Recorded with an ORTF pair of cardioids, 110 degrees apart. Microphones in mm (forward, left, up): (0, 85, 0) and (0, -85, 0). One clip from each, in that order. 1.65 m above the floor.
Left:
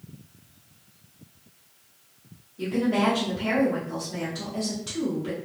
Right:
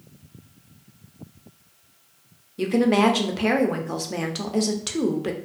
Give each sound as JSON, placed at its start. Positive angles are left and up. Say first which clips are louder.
{"t": 2.6, "sound": "a woman speaking", "louder": "right 5 dB", "azimuth_deg": -60, "distance_m": 0.7}